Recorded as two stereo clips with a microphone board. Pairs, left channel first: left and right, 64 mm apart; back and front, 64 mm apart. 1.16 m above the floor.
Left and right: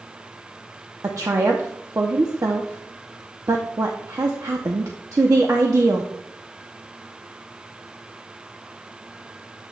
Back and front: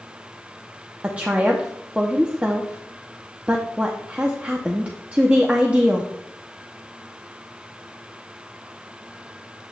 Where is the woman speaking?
65° right, 0.7 m.